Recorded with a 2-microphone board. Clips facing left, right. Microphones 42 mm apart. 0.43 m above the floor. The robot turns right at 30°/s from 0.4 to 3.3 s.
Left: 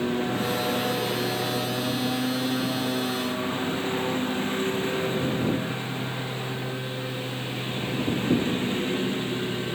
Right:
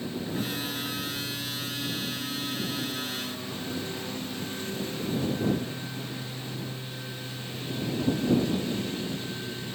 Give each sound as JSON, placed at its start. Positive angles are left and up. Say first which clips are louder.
{"t": 0.0, "sound": "a lawn mower", "louder": "left 7 dB", "azimuth_deg": 55}